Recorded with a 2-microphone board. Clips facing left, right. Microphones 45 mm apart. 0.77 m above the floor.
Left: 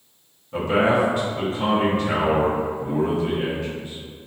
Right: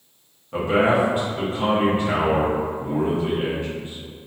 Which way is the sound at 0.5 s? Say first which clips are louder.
Right 1 dB; 25° right (ahead or behind).